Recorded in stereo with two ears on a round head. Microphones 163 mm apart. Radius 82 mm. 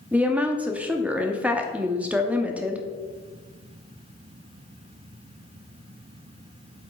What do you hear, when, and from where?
0.1 s a woman speaking: 10° right (ahead or behind), 0.7 m